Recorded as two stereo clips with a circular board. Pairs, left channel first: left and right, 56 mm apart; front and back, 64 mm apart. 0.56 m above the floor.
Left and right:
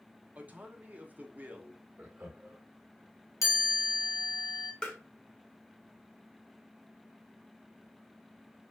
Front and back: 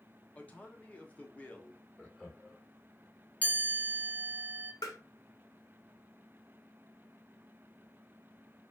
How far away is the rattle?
I don't hear a rattle.